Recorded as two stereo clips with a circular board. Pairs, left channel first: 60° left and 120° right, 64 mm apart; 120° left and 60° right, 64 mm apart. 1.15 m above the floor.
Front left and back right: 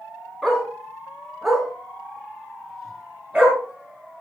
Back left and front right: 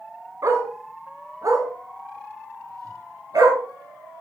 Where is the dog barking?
25° right, 4 m; by 4.2 s 40° right, 7 m.